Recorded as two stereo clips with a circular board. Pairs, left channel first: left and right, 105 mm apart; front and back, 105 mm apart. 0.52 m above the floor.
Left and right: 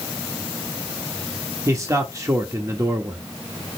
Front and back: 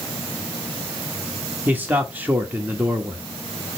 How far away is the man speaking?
About 1.3 m.